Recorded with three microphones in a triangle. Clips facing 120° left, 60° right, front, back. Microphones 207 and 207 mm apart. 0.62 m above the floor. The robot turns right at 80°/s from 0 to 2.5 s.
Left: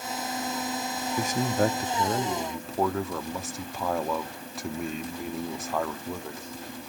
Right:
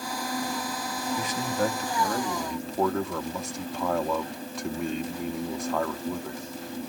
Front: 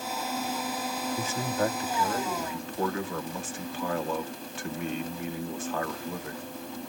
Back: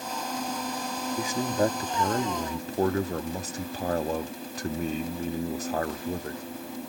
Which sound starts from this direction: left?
A man speaking, at 1.2 s.